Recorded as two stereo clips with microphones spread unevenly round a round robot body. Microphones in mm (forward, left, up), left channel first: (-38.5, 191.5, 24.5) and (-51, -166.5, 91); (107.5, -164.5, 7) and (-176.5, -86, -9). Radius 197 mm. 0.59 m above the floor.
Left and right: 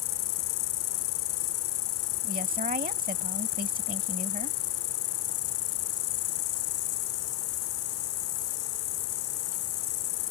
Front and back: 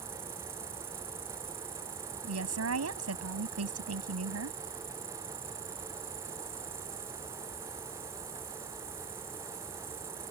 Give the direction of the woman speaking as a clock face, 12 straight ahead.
5 o'clock.